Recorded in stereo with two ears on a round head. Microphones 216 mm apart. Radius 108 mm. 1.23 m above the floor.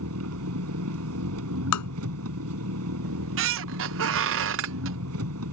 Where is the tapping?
85° left.